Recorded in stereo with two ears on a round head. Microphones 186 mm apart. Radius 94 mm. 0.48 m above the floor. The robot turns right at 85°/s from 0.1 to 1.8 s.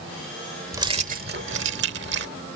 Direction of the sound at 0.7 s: 165° right.